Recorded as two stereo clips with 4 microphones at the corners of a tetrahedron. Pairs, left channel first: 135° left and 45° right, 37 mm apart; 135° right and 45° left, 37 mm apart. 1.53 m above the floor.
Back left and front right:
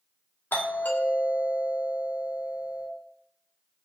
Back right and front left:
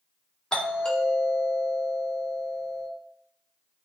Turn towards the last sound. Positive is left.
turn(degrees=160)